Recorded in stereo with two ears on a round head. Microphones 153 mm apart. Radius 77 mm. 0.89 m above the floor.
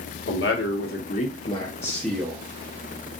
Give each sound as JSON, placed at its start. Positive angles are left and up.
{"t": 0.3, "sound": "a man speaking", "side_deg": 75, "distance_m": 1.4}